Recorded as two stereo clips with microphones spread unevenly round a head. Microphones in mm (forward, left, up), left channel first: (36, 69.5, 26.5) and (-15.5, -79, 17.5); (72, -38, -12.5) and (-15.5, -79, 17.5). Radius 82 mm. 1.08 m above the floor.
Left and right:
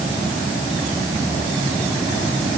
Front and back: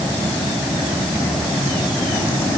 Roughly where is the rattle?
I don't hear a rattle.